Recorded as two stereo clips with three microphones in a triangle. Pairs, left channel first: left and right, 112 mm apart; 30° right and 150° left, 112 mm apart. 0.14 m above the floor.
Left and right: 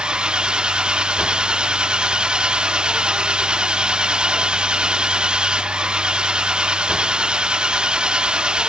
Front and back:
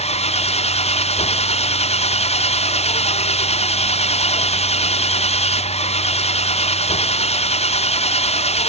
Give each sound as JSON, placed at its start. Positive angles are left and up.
{"t": 0.0, "sound": "an engine running", "azimuth_deg": -10}